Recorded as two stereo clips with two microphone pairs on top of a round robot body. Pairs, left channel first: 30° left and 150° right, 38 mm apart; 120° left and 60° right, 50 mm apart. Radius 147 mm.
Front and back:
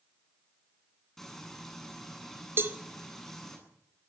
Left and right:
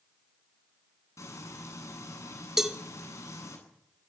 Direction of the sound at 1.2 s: 115° left.